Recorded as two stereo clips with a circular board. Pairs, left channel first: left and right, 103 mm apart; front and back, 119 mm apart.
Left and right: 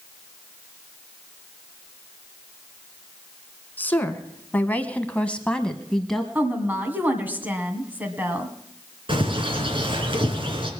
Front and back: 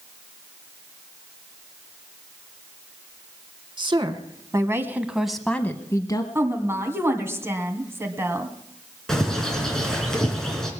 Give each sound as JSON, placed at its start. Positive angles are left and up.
{"t": 3.8, "sound": "a woman speaking", "azimuth_deg": 160, "distance_m": 1.5}
{"t": 6.3, "sound": "a woman speaking", "azimuth_deg": -140, "distance_m": 1.8}
{"t": 9.1, "sound": "a bird", "azimuth_deg": -85, "distance_m": 3.0}